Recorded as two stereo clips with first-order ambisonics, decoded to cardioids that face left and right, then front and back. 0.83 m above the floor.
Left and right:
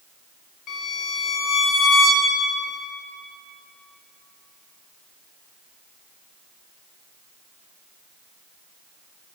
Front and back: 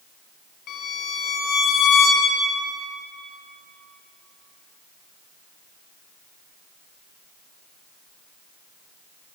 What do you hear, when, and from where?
0.7 s a violin: 40° left, 1.4 m